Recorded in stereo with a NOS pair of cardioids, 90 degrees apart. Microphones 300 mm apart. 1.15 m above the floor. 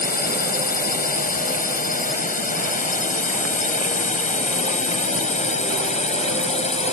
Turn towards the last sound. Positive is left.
turn(degrees=20)